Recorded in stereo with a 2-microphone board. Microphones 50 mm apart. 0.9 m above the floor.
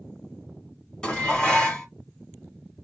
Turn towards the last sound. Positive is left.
turn(degrees=15)  # may be behind; listen again after turning